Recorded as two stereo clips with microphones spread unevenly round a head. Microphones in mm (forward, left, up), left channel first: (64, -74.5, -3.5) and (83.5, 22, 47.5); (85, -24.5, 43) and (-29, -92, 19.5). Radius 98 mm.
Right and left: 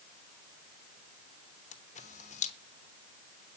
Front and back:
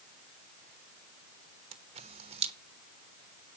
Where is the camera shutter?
120° right, 1.0 m.